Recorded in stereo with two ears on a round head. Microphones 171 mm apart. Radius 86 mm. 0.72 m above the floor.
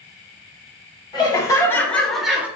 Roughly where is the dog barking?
No dog barking in this recording.